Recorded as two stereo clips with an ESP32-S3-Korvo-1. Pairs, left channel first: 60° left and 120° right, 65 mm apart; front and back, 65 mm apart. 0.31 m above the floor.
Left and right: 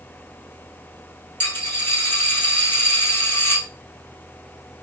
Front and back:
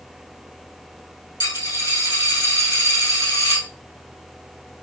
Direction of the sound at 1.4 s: 5° left.